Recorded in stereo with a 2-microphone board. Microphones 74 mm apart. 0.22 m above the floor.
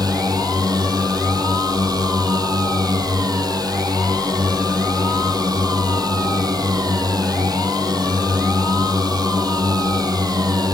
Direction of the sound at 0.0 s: 60° right (ahead or behind).